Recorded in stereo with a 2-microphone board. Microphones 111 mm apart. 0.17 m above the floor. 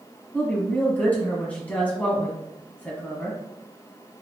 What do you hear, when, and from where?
0.3 s a woman speaking: 15° left (ahead or behind), 1.3 m